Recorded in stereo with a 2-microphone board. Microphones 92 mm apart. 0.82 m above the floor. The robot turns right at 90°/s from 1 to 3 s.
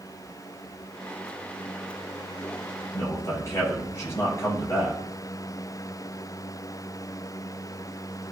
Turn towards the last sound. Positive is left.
turn(degrees=30)  # may be behind; listen again after turning